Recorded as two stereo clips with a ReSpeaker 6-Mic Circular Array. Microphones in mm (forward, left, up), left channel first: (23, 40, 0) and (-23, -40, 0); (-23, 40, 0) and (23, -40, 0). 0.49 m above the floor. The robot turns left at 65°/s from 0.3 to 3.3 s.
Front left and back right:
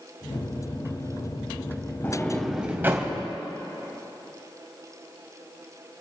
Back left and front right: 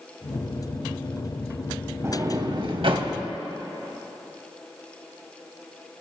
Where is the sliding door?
Straight ahead, 2.0 m; by 3.1 s 70° right, 2.0 m.